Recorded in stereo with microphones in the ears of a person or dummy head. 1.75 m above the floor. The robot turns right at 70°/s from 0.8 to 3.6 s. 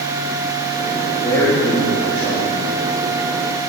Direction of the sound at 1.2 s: 155° left.